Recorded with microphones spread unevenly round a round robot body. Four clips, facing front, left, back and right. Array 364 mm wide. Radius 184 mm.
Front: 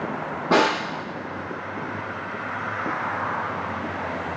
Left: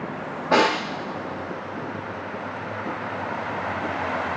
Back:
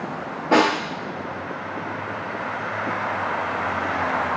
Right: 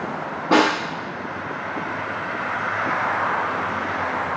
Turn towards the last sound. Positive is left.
turn(degrees=-35)